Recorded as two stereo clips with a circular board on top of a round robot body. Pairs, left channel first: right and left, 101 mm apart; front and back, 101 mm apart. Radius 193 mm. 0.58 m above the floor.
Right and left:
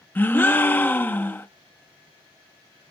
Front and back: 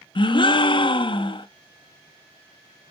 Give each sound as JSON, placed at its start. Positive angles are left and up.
{"t": 0.1, "sound": "a gasp", "azimuth_deg": -25, "distance_m": 1.2}